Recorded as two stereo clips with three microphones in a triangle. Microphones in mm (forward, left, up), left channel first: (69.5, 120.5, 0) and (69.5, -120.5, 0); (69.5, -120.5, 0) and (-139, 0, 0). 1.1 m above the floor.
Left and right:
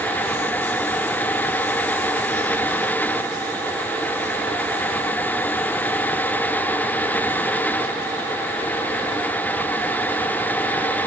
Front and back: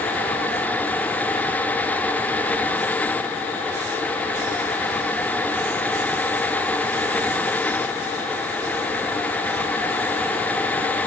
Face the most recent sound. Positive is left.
No sound to turn to.